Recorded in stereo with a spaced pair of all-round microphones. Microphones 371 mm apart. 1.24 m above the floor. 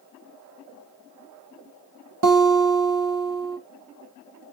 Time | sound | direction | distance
2.2 | a guitar | 55° right (ahead or behind) | 0.7 m